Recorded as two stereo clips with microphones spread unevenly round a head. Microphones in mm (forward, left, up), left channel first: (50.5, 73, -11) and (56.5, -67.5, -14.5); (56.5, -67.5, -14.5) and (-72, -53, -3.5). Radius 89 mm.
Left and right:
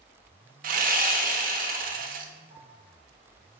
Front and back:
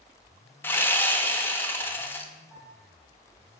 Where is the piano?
135° right, 4 m.